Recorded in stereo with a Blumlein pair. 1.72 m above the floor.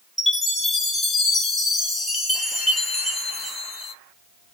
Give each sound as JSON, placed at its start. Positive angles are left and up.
{"t": 0.2, "sound": "a chime", "azimuth_deg": 5, "distance_m": 1.5}